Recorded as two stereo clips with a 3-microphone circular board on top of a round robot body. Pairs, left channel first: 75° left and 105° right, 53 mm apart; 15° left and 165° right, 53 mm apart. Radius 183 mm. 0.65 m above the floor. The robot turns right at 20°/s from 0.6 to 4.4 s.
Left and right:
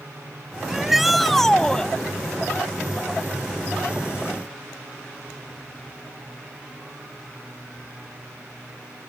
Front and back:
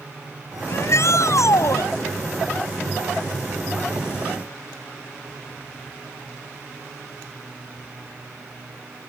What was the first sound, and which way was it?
A shout, 25° right.